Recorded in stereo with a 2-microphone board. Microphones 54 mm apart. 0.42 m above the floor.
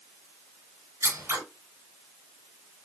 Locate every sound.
1.0 s scissors: 65° right (ahead or behind), 3.5 m